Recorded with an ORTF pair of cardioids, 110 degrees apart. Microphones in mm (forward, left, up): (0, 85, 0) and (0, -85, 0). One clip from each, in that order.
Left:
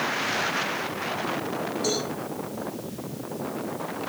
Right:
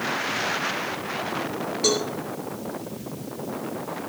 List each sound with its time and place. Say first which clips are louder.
1.8 s a cowbell: right 6 dB; 65° right, 10 m